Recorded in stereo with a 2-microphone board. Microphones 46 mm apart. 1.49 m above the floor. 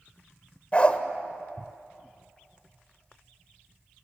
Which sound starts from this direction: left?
A dog barking, at 0.7 s.